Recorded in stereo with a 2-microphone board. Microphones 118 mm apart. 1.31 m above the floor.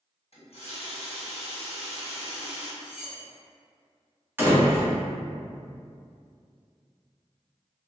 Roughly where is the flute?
I don't hear a flute.